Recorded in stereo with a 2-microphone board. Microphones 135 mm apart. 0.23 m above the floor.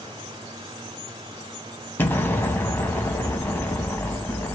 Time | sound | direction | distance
2.0 | an explosion | 15° left (ahead or behind) | 1.3 m